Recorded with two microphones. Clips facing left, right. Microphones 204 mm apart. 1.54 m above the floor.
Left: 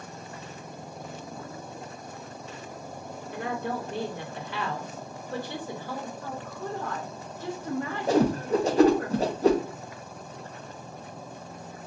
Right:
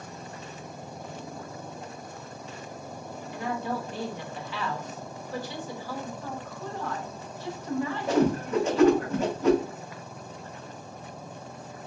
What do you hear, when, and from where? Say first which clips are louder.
3.3 s a woman speaking: even; 55° left (ahead or behind), 1.4 m
6.2 s a woman speaking: left 1 dB; 50° left (ahead or behind), 1.3 m
8.1 s a whoosh: left 2 dB; 35° left (ahead or behind), 0.7 m